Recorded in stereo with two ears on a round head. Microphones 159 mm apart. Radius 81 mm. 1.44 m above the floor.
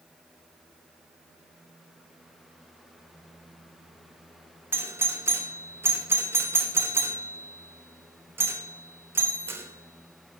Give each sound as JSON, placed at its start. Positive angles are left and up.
{"t": 4.7, "sound": "a doorbell", "side_deg": -10, "distance_m": 0.9}